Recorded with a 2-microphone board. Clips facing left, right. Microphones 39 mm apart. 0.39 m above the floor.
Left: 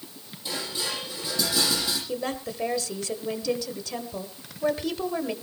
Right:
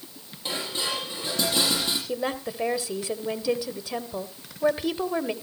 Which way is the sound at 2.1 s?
20° right (ahead or behind).